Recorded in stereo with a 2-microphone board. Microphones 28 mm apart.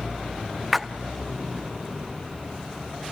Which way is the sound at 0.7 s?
Centre (ahead or behind).